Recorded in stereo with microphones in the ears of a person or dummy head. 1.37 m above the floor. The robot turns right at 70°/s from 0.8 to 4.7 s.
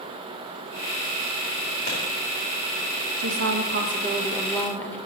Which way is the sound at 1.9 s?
55° left (ahead or behind).